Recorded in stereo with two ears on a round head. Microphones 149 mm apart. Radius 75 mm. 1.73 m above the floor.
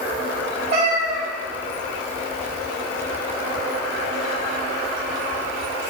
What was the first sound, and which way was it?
A cat meowing, 35° right (ahead or behind).